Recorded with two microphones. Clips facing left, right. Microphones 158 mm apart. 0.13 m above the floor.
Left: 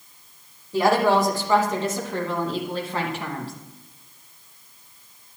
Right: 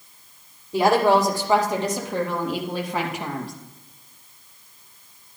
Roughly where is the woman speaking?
Centre.